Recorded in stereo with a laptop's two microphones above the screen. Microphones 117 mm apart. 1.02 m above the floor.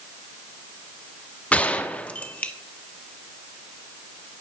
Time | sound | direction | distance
1.5 | a gunshot | 10° left (ahead or behind) | 0.7 m